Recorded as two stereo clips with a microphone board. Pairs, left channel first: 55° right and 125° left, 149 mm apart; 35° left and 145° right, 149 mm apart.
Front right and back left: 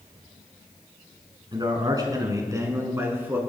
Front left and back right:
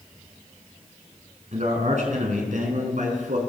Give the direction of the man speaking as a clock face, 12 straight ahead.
6 o'clock.